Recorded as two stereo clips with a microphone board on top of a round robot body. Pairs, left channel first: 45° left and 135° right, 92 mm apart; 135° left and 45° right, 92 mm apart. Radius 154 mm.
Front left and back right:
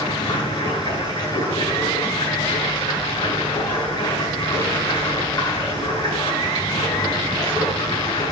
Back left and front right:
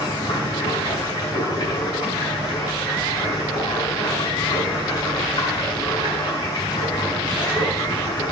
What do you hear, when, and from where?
0.0 s running water: 85° left, 6 m